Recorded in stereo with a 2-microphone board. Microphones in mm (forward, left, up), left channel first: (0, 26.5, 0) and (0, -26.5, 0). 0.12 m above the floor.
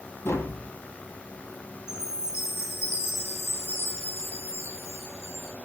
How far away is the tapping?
About 1.5 m.